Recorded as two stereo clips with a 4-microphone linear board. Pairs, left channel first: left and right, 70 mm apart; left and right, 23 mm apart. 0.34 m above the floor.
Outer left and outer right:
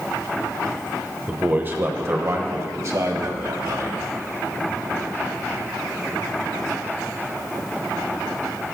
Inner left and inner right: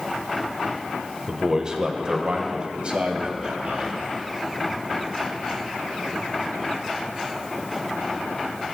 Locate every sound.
1.3 s a man speaking: 20° right (ahead or behind), 0.9 m; by 4.0 s 55° right (ahead or behind), 2 m